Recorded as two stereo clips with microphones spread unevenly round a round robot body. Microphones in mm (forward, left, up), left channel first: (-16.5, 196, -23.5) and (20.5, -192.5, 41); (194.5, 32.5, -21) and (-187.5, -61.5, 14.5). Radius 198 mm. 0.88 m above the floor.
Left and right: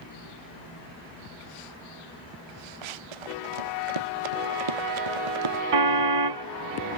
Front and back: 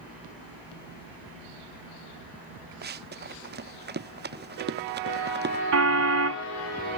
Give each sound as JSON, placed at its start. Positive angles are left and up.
{"t": 2.8, "sound": "running footsteps", "azimuth_deg": -100}
{"t": 5.7, "sound": "a car horn", "azimuth_deg": -115}